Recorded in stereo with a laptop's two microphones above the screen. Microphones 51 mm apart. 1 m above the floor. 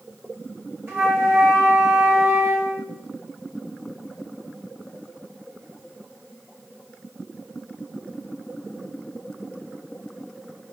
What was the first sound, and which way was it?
A flute, 55° right (ahead or behind).